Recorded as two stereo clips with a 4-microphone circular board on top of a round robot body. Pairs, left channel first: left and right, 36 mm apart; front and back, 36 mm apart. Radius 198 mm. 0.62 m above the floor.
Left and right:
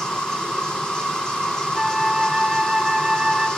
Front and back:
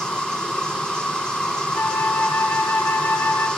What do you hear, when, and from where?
0.0 s an insect: 45° left, 1.5 m
1.8 s a flute: 10° right, 1.1 m